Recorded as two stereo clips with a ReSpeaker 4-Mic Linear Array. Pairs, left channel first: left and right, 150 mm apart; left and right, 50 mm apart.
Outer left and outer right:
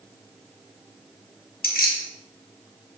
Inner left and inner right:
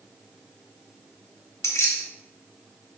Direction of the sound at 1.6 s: 80° left.